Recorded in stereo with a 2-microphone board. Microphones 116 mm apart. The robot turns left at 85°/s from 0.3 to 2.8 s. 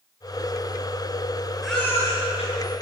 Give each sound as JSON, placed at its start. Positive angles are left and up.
{"t": 1.6, "sound": "a baby crying", "side_deg": 0, "distance_m": 7.5}